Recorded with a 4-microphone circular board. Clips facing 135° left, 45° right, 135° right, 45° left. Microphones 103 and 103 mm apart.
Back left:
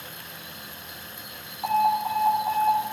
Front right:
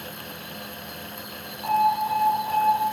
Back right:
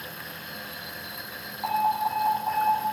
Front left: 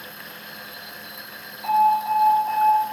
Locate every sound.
1.6 s an alarm: 165° right, 3.5 m